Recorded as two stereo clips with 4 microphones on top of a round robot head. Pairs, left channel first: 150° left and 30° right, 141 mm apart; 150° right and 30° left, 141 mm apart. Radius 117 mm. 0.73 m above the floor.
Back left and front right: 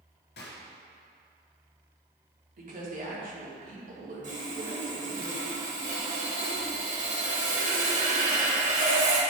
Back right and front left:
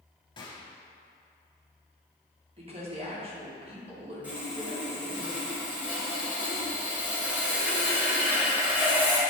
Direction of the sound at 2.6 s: 15° right.